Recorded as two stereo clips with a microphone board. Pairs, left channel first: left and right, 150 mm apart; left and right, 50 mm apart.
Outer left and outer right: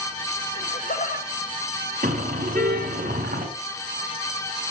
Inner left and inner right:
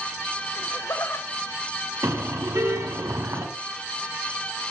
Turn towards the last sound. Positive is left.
turn(degrees=-75)  # may be behind; listen again after turning